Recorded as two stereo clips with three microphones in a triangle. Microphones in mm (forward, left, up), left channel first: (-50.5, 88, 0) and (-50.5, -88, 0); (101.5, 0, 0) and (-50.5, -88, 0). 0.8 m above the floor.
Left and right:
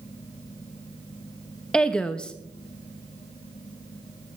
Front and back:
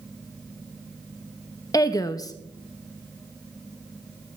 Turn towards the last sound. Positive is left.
turn(degrees=15)